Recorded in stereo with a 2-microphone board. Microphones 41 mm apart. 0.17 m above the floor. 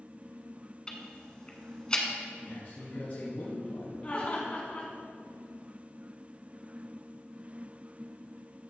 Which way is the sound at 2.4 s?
60° left (ahead or behind).